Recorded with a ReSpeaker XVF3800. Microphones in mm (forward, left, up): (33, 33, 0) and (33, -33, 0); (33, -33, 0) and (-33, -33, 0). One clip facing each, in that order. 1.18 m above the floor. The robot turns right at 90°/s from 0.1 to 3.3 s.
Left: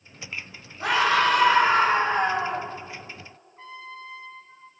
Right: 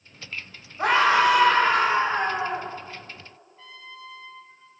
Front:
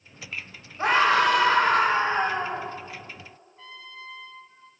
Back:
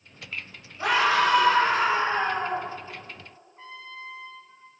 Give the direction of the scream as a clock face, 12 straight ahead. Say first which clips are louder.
Right 2 dB, front 2 dB; 2 o'clock.